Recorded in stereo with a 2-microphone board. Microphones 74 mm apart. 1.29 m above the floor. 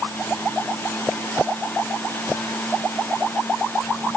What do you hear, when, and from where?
Only background noise.